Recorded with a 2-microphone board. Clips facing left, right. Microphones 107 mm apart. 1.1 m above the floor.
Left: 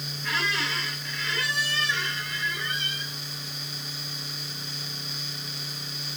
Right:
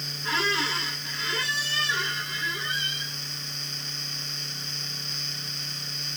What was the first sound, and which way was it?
A squeak, 30° right (ahead or behind).